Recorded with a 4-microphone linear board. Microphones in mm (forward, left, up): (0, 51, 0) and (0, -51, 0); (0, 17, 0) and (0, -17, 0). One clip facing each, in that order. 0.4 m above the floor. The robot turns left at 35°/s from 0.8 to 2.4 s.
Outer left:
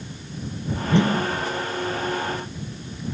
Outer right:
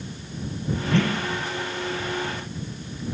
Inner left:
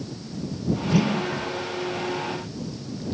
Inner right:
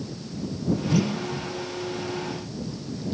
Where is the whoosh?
15° left (ahead or behind); by 1.3 s 30° left (ahead or behind).